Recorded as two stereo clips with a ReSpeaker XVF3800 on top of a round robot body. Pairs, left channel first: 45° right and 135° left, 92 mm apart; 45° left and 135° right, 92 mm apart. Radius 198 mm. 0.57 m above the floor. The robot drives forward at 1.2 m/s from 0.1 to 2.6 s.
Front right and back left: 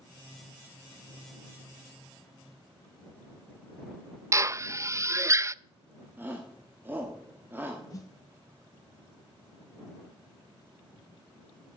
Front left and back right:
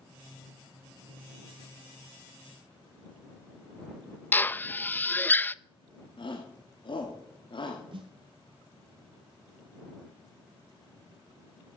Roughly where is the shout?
Left.